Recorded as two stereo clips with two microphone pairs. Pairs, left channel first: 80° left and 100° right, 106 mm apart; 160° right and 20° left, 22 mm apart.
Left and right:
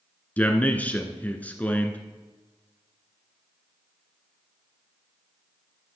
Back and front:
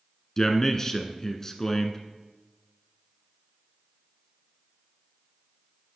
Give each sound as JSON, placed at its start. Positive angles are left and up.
{"t": 0.4, "sound": "a man speaking", "azimuth_deg": 150, "distance_m": 1.3}